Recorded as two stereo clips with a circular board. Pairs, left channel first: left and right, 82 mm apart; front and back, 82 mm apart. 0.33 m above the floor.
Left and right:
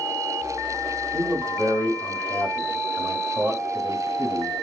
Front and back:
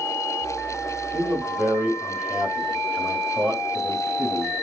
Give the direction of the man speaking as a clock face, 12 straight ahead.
4 o'clock.